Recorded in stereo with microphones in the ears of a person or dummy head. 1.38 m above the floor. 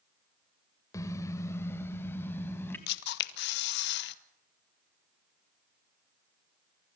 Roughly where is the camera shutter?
Left.